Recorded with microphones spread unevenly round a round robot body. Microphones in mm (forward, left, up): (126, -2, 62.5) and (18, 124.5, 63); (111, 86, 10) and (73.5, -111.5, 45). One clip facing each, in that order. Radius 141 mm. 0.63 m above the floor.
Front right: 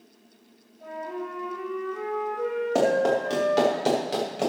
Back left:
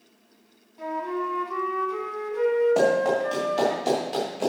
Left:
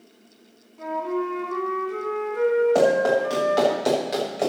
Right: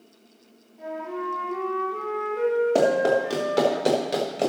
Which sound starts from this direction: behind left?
A flute, at 0.8 s.